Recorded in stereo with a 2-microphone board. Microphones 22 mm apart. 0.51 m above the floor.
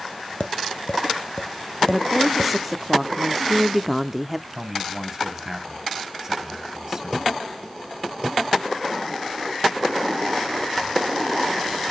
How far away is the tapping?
About 1.0 m.